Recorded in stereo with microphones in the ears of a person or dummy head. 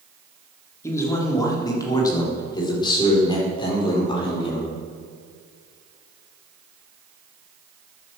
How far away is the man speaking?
About 3 m.